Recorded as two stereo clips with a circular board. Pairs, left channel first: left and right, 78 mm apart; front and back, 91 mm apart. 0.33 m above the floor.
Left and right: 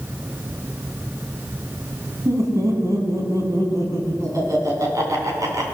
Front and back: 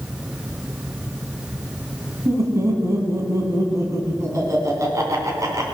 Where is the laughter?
130° right, 3 m.